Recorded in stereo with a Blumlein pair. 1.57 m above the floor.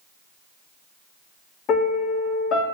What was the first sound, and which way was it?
A piano, 30° left.